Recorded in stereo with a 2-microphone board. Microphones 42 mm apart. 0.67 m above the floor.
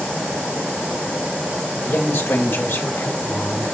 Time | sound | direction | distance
1.8 | a man speaking | 65° left (ahead or behind) | 3 m